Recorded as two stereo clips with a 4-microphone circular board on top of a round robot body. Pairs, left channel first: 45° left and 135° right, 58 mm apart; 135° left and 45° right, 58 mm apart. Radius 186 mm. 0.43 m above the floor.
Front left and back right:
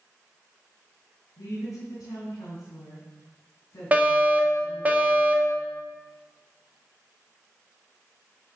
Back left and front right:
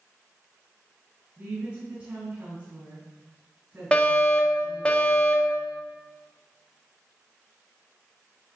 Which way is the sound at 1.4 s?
25° left.